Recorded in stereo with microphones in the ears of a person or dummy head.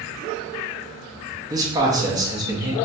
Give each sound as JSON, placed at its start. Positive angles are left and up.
{"t": 1.5, "sound": "a man speaking", "side_deg": -20, "distance_m": 0.7}